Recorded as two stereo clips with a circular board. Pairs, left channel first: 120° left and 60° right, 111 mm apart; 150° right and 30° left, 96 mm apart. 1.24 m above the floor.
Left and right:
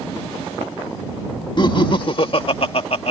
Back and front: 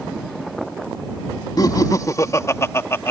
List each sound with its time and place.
1.6 s laughter: 165° left; by 3.1 s 145° left